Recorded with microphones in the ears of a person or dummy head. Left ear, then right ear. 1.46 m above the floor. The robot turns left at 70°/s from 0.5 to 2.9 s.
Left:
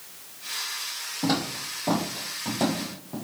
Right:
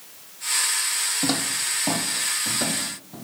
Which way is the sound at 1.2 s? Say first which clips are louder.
Right 3 dB; 50° right (ahead or behind).